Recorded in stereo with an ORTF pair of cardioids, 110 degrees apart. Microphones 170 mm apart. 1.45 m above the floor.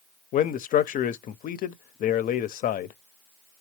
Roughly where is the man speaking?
Ahead left.